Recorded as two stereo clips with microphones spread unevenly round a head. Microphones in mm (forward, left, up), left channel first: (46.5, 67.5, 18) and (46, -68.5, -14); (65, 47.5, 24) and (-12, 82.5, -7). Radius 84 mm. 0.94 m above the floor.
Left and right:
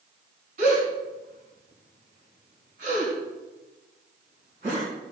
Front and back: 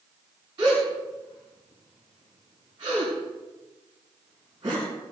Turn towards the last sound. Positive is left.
turn(degrees=-140)